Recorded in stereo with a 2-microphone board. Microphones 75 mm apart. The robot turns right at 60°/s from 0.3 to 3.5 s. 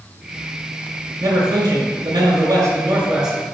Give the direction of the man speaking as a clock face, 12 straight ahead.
4 o'clock.